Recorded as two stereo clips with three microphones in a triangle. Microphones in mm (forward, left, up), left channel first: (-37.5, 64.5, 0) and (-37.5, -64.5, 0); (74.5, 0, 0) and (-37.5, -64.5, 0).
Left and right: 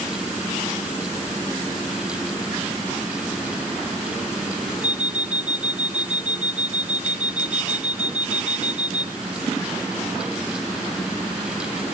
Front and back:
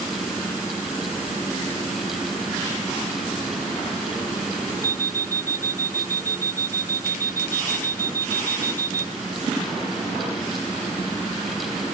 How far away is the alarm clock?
About 0.6 m.